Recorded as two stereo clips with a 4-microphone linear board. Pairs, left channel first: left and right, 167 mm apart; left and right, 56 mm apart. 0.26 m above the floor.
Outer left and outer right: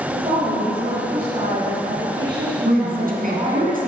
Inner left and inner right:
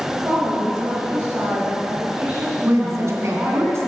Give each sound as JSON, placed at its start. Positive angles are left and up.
{"t": 0.1, "sound": "a woman speaking", "side_deg": -40, "distance_m": 4.5}
{"t": 2.6, "sound": "a woman speaking", "side_deg": -60, "distance_m": 3.0}